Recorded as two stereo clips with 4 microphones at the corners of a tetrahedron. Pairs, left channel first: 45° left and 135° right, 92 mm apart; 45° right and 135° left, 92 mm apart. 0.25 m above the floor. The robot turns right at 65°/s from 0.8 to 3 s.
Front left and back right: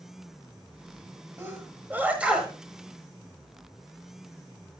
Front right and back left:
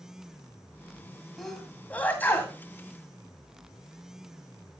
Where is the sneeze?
130° right, 1.5 m; by 2.5 s 55° right, 1.5 m.